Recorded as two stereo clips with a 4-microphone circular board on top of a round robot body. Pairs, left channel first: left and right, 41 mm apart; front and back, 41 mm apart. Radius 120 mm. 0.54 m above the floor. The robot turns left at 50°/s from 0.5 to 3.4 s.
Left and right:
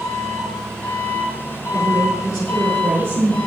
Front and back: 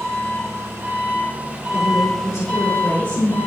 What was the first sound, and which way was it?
An engine running, 170° left.